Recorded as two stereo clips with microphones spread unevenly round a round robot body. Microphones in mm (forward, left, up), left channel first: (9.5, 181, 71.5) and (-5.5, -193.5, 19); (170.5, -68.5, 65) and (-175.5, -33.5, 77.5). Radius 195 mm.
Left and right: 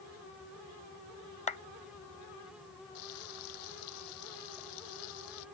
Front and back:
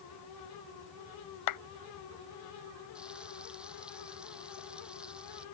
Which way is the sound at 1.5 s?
10° left.